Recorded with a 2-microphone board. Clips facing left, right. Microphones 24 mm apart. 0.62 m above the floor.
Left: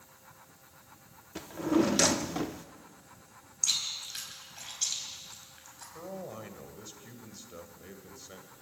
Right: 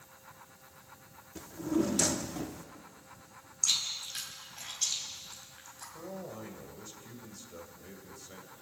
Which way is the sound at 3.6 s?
5° left (ahead or behind).